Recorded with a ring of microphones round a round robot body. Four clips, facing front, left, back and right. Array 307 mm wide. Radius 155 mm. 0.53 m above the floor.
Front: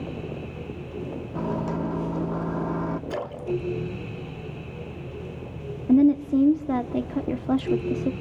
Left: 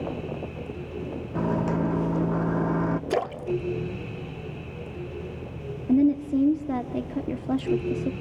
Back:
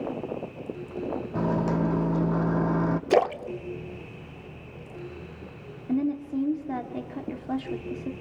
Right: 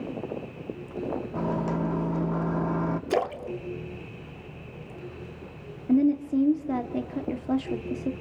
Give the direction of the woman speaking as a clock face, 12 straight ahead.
12 o'clock.